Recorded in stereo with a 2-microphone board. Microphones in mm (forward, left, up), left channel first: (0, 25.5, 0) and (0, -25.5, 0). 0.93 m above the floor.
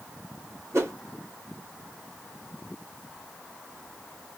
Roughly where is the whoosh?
Right.